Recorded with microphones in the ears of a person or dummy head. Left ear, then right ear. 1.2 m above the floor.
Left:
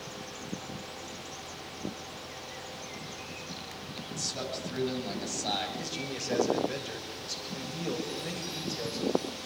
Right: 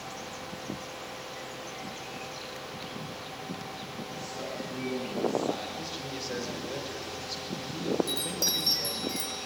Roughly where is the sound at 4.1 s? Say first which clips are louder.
Left 4 dB; left.